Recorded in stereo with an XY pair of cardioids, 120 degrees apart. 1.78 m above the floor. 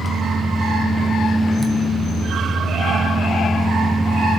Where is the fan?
20° right, 1.4 m.